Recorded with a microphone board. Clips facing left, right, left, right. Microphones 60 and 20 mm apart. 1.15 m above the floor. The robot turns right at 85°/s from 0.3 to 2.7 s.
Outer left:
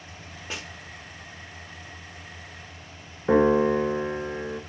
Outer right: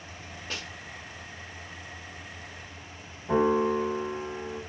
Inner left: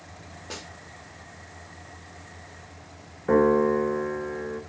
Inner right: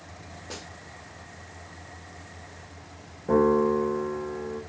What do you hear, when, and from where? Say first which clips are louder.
0.5 s a snare drum: outer left 2 dB, inner left 2 dB; 15° left (ahead or behind), 1.1 m; by 0.7 s 25° left (ahead or behind), 1.1 m
3.3 s a piano: outer left 4 dB, inner left 1 dB; 80° left, 1.6 m